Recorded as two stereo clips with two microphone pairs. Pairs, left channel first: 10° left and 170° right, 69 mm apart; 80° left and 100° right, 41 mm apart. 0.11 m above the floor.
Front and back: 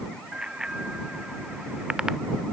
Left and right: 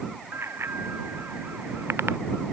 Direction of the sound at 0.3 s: 90° right.